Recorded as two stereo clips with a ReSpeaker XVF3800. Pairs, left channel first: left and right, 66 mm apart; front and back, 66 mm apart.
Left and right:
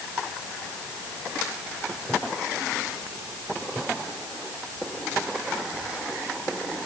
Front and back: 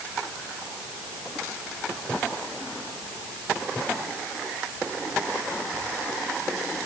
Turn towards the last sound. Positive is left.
No sound to turn to.